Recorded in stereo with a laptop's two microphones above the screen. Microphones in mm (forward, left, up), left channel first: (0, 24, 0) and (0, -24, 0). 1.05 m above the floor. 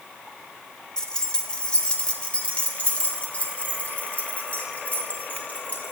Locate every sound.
1.0 s keys jangling: 15° left (ahead or behind), 1.3 m; by 5.9 s 35° left (ahead or behind), 3.5 m